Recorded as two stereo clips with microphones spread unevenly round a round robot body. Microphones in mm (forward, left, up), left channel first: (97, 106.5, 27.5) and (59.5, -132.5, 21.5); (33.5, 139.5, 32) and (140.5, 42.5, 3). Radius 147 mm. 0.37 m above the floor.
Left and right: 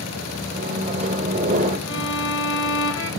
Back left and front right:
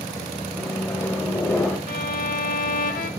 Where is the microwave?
140° right, 1.2 m.